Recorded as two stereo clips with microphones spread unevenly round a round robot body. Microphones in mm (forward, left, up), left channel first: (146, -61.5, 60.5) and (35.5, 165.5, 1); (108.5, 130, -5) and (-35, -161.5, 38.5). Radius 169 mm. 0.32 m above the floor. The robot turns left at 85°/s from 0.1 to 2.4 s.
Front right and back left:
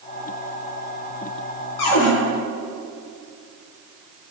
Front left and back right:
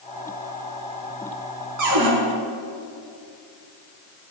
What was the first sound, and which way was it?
A cupboard door, 75° right.